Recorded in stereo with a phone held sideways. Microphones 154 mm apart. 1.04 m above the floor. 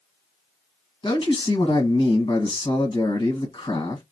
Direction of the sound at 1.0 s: 35° left (ahead or behind).